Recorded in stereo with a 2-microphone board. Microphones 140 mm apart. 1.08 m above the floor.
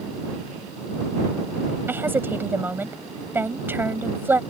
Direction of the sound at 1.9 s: 15° right (ahead or behind).